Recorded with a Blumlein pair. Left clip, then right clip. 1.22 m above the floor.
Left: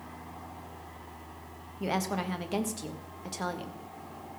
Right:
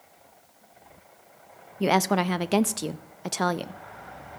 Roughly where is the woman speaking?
Ahead right.